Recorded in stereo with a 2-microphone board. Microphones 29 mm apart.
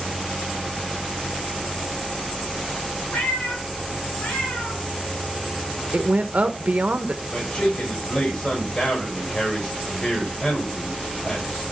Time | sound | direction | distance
3.1 | a cat meowing | 75° left (ahead or behind) | 2.5 m
5.9 | a woman speaking | 55° right (ahead or behind) | 0.8 m
7.3 | a man speaking | 30° left (ahead or behind) | 5.5 m